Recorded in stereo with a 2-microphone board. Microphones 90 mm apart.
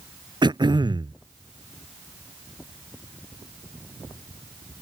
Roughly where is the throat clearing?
Right.